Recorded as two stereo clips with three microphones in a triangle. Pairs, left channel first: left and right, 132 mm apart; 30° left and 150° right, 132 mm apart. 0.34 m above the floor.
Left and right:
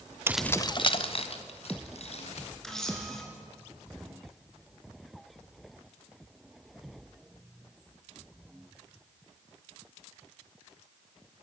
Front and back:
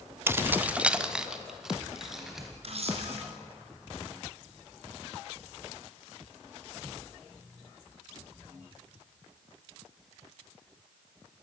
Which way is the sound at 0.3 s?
115° right.